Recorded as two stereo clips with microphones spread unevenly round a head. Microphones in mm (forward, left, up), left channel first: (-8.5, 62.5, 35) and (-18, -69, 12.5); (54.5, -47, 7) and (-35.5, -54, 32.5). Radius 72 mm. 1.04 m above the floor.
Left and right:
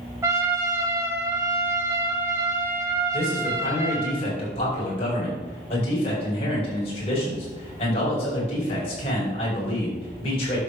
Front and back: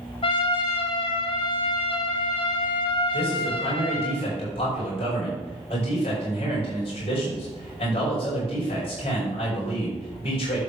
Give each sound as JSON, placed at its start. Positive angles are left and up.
{"t": 0.2, "sound": "a trumpet", "azimuth_deg": -20, "distance_m": 2.5}
{"t": 3.1, "sound": "a man speaking", "azimuth_deg": 35, "distance_m": 6.0}